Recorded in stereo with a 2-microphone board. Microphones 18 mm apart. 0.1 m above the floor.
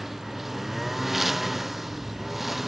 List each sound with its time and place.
0.0 s a lawn mower: 10° right (ahead or behind)